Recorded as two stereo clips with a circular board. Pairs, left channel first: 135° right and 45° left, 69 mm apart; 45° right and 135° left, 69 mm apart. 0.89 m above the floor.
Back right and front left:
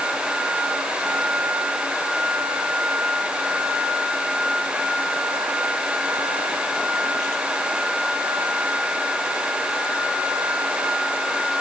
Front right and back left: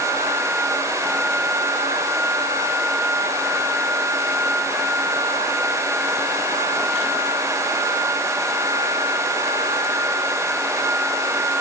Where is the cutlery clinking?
No cutlery clinking in this recording.